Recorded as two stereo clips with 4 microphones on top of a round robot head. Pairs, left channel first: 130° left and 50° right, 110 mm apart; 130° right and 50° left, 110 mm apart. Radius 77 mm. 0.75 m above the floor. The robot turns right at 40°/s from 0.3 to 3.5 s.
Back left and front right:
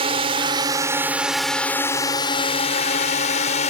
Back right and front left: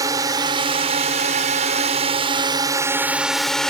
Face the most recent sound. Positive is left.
turn(degrees=140)